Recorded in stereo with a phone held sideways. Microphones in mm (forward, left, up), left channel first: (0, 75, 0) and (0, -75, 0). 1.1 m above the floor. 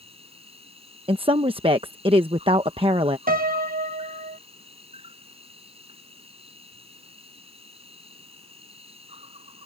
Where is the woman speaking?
35° right (ahead or behind).